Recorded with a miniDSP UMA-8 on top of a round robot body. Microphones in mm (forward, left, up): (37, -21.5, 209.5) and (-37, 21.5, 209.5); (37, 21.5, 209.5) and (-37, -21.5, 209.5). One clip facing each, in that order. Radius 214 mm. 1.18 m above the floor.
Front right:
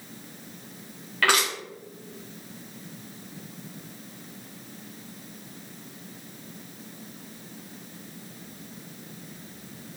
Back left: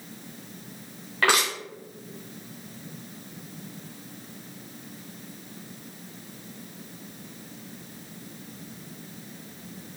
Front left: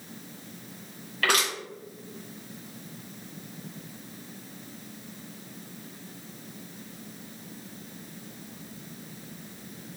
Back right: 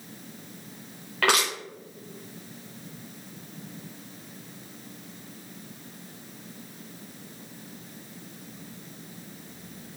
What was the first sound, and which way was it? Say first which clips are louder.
Crushing: even, back right 2 dB; 140° right.